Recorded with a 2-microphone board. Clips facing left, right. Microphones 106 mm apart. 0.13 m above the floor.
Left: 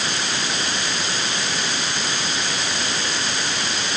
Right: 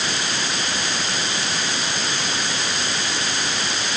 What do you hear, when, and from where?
Only background noise.